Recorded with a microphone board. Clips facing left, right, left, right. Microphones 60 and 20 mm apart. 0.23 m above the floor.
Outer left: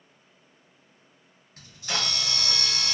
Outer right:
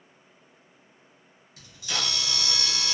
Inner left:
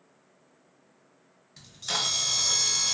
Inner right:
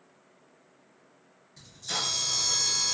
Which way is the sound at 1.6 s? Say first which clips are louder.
Outer left 1 dB, inner left 3 dB; 40° left (ahead or behind).